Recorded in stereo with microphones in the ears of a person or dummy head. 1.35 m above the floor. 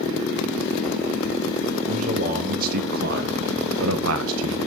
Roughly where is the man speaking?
Right.